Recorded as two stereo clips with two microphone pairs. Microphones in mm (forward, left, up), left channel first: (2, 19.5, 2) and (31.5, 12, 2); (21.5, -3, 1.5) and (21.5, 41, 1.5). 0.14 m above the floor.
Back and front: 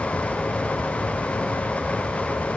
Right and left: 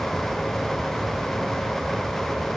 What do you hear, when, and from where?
Only background noise.